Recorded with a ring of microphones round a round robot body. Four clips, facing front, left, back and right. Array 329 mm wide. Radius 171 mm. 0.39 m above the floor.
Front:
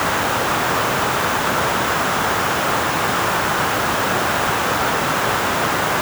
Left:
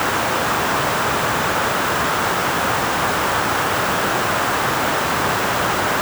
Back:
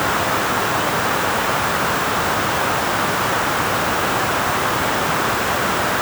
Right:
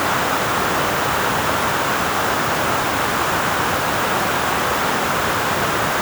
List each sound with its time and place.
Only background noise.